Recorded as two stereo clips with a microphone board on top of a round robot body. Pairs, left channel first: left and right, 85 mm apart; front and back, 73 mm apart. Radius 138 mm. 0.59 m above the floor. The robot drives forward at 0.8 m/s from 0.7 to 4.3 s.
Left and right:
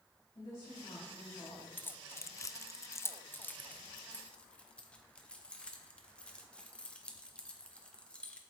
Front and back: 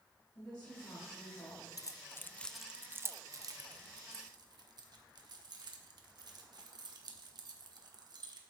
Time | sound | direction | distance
0.3 | a woman speaking | 35° left | 5 m
1.8 | keys jangling | 25° left | 0.9 m